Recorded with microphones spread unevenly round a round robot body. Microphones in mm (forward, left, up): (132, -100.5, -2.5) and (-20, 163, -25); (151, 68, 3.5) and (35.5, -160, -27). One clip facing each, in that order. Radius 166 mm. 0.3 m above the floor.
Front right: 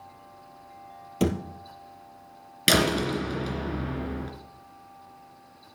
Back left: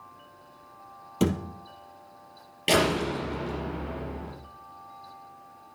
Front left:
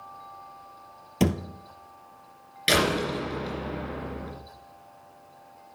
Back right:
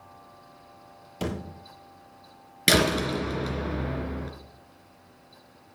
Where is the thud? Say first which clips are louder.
Even, front left 7 dB; 35° left, 1.7 m.